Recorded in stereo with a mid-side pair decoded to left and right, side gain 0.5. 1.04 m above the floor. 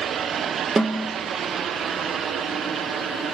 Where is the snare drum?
25° right, 1.3 m.